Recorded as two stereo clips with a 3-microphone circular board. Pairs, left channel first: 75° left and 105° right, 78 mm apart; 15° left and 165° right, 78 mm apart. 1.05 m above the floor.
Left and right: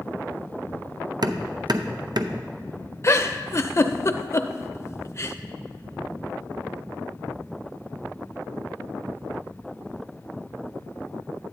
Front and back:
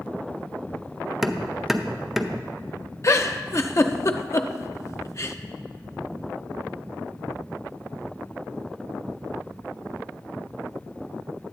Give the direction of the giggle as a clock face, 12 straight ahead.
11 o'clock.